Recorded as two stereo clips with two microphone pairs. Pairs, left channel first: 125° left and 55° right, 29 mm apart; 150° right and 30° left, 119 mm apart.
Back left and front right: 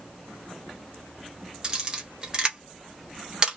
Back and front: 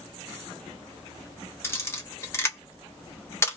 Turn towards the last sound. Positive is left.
turn(degrees=-95)